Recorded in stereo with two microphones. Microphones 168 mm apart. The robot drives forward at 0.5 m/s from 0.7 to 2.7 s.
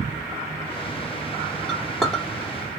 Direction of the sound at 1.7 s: 5° left (ahead or behind).